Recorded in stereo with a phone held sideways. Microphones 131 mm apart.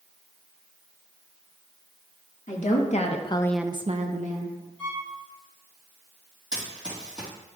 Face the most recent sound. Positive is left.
turn(degrees=-5)  # may be behind; listen again after turning